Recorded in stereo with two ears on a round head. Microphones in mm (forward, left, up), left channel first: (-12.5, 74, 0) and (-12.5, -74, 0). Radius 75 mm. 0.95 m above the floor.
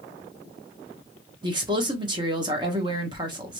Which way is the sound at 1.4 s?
25° right (ahead or behind).